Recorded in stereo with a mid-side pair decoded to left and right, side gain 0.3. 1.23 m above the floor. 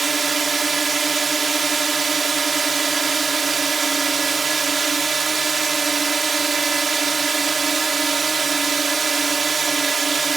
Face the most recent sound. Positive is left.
turn(degrees=-45)